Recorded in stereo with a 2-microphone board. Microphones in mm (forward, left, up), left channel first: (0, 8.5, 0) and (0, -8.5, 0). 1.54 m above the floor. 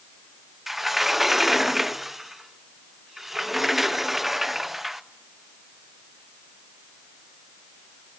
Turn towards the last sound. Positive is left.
turn(degrees=-15)  # may be behind; listen again after turning